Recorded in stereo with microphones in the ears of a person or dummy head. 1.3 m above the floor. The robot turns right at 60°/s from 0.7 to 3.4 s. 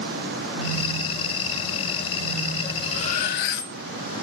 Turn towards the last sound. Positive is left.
turn(degrees=70)